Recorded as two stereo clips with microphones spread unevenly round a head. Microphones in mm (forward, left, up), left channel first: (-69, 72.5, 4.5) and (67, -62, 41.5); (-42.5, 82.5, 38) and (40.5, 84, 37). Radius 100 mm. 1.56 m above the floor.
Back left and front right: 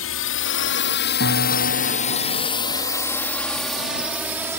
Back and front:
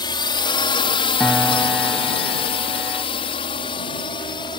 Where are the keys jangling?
No keys jangling in this recording.